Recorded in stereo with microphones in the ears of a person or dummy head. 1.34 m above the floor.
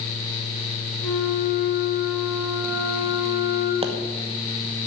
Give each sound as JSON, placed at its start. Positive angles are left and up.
{"t": 1.0, "sound": "a flute", "side_deg": 15, "distance_m": 5.5}
{"t": 3.8, "sound": "a pop", "side_deg": -25, "distance_m": 1.1}